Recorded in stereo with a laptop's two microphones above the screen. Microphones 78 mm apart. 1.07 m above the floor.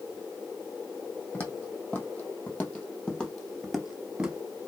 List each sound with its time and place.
1.3 s footsteps: 25° left (ahead or behind), 2.5 m; by 4.4 s 10° right (ahead or behind), 1.1 m